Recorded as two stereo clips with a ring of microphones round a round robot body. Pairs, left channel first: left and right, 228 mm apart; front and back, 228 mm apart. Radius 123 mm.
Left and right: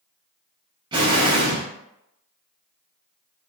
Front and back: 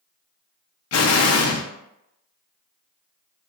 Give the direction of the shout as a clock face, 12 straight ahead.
I don't hear a shout.